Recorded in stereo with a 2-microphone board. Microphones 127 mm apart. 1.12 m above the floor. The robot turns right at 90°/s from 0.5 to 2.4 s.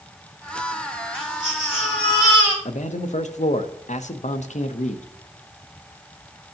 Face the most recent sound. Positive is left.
turn(degrees=80)